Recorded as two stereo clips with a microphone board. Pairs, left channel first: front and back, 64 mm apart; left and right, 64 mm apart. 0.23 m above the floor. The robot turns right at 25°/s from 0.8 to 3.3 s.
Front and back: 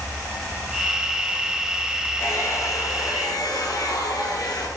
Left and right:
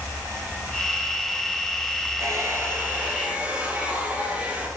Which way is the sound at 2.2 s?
50° right.